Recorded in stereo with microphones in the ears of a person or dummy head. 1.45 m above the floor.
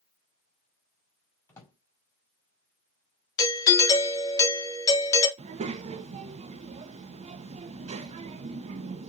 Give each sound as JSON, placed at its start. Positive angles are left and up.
{"t": 1.5, "sound": "a drawer", "side_deg": 15, "distance_m": 1.7}
{"t": 3.4, "sound": "a doorbell", "side_deg": 20, "distance_m": 1.2}
{"t": 5.4, "sound": "a child speaking", "side_deg": -35, "distance_m": 0.5}